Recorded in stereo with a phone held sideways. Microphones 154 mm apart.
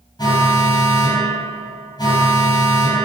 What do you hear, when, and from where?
0.2 s an alarm: 25° left (ahead or behind), 8 m